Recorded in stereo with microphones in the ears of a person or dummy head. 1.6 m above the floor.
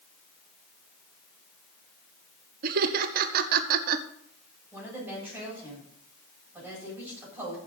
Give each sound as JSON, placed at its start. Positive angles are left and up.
{"t": 2.6, "sound": "laughter", "side_deg": -55, "distance_m": 0.9}
{"t": 4.7, "sound": "a woman speaking", "side_deg": -15, "distance_m": 8.0}